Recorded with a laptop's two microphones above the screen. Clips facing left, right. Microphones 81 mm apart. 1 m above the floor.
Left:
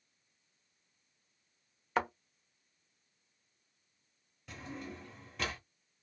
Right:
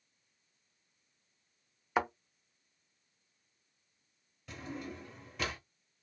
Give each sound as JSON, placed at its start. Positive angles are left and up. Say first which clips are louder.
{"t": 2.0, "sound": "a thud", "louder": "right 1 dB", "side_deg": -5, "distance_m": 0.7}
{"t": 4.5, "sound": "a drawer", "louder": "right 2 dB", "side_deg": 0, "distance_m": 1.0}